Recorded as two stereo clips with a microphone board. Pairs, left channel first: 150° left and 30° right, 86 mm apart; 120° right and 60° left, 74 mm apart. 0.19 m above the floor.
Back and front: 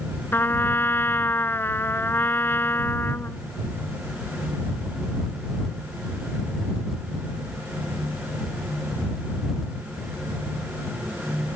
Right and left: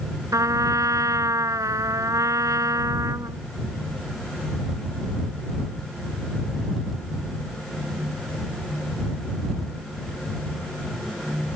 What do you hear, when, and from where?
0.3 s a trumpet: 90° left